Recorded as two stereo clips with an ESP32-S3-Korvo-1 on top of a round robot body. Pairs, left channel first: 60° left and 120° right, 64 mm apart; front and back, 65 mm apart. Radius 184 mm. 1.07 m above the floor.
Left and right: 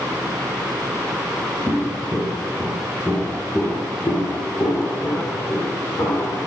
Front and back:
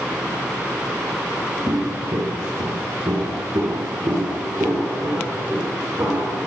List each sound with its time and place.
1.7 s footsteps: 170° right, 1.3 m; by 6.4 s 120° left, 3.5 m